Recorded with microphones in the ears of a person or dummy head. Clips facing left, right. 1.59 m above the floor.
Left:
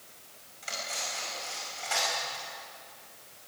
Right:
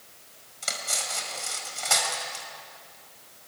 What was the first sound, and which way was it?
Cutlery clinking, 75° right (ahead or behind).